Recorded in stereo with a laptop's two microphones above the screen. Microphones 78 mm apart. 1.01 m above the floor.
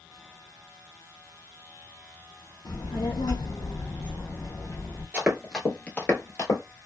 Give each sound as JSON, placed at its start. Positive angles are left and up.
{"t": 2.6, "sound": "a child speaking", "side_deg": 65, "distance_m": 0.7}
{"t": 5.1, "sound": "running footsteps", "side_deg": -20, "distance_m": 1.0}